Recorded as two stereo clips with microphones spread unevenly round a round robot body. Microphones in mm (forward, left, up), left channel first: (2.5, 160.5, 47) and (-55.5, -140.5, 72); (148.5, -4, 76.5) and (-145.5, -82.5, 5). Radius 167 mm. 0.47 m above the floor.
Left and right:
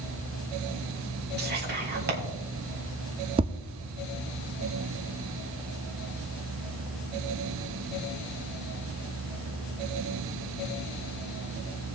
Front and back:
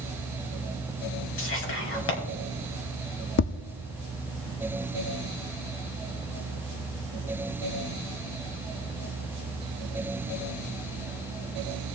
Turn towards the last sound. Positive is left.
turn(degrees=-30)